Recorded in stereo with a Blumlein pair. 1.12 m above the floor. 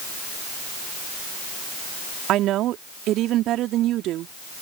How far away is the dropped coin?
No dropped coin in this recording.